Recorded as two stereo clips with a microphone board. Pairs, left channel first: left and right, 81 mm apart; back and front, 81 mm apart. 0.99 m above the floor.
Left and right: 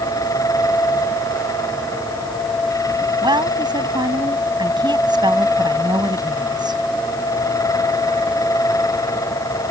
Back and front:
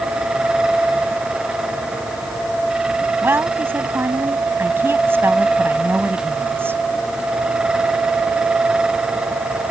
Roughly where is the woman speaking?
Ahead right.